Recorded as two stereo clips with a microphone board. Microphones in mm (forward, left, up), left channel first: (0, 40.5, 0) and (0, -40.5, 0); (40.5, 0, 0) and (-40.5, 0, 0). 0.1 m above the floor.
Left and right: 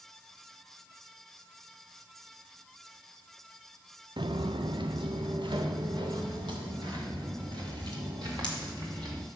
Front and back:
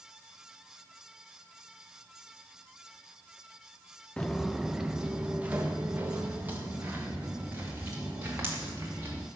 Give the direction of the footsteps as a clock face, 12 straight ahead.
3 o'clock.